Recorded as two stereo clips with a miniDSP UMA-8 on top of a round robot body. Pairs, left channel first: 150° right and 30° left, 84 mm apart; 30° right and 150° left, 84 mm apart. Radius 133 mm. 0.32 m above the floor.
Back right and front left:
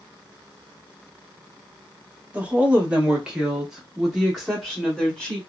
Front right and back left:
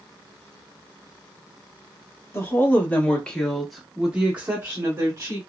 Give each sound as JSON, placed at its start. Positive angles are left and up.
{"t": 2.3, "sound": "a woman speaking", "azimuth_deg": -25, "distance_m": 1.4}